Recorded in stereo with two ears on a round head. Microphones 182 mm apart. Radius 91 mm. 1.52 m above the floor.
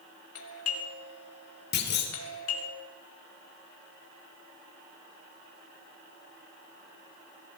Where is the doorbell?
80° left, 3 m.